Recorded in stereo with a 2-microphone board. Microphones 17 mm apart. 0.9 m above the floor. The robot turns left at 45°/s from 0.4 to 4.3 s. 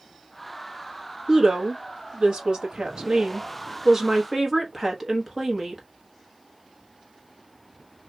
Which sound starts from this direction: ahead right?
A woman speaking, at 1.3 s.